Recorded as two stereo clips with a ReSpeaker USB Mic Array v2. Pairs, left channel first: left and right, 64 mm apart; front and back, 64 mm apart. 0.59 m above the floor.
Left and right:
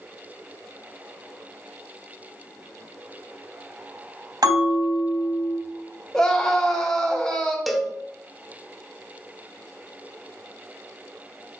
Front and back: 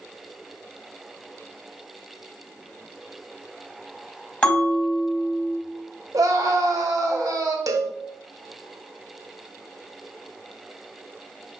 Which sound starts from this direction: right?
A bell, at 4.4 s.